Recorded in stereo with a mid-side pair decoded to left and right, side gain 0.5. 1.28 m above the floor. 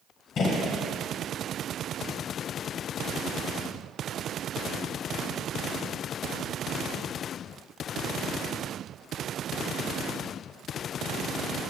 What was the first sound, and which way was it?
A gunshot, 55° left.